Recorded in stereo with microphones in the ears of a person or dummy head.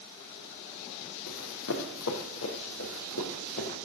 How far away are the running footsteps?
About 3.5 m.